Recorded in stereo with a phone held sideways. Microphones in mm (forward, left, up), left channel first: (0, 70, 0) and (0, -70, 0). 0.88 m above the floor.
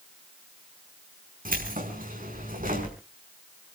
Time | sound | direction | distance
1.4 | keys jangling | 90° right | 5.5 m